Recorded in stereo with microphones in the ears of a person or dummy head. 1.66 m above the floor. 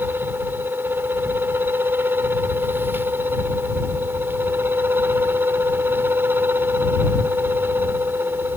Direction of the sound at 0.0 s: 10° right (ahead or behind).